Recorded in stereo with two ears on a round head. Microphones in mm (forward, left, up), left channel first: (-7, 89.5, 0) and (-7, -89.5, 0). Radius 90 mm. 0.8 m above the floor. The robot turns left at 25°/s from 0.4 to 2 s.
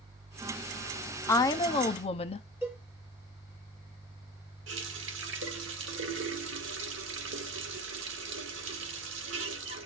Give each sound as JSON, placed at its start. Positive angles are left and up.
{"t": 1.3, "sound": "a woman speaking", "side_deg": 15, "distance_m": 0.8}
{"t": 2.6, "sound": "a cowbell", "side_deg": -10, "distance_m": 6.5}
{"t": 4.7, "sound": "a running tap", "side_deg": -65, "distance_m": 1.4}